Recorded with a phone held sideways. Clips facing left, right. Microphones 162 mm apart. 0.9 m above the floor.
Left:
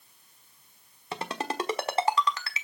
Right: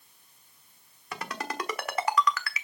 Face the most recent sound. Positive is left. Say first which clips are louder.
# left 3 dB
turn(degrees=25)  # may be behind; listen again after turning